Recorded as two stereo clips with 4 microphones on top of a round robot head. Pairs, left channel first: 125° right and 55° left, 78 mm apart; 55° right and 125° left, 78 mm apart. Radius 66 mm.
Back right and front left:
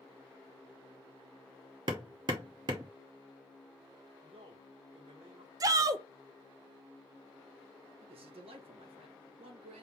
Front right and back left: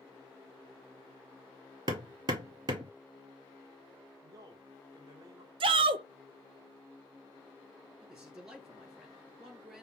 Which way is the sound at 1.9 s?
90° left.